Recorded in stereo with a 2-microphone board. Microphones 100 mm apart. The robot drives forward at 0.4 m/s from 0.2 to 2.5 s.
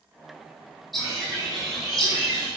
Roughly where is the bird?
Centre.